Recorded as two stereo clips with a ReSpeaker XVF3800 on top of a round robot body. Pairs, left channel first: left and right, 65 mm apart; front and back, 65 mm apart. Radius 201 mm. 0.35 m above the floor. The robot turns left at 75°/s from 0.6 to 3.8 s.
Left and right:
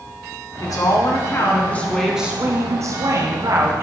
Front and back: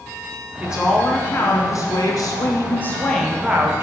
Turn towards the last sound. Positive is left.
turn(degrees=-130)